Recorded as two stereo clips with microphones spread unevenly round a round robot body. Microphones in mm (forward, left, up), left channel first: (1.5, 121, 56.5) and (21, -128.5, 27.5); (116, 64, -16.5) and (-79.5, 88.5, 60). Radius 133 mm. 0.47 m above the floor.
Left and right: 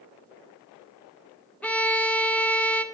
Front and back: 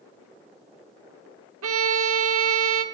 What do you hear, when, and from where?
1.6 s a violin: 175° right, 1.4 m